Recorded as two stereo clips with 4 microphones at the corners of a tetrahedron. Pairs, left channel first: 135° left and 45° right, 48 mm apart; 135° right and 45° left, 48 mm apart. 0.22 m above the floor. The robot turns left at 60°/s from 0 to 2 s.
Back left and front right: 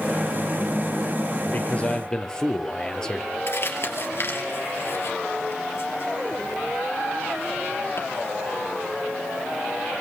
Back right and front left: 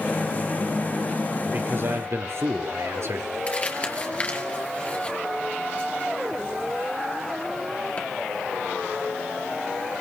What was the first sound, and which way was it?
A man speaking, 95° left.